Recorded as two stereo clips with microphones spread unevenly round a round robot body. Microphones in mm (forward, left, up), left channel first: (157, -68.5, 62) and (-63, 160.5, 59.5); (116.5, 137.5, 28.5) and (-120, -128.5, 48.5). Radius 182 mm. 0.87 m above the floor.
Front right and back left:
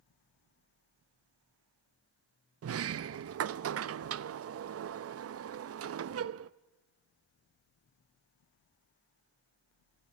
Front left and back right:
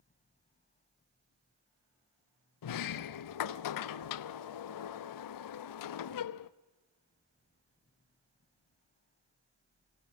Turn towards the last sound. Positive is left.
turn(degrees=85)